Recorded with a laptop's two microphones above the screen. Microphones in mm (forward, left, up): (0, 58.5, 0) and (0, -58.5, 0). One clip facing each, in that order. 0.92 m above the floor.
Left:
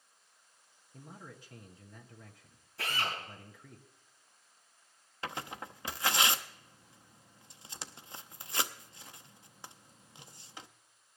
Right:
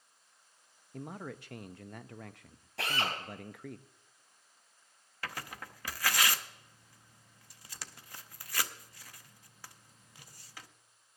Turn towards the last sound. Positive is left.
turn(degrees=25)  # may be behind; listen again after turning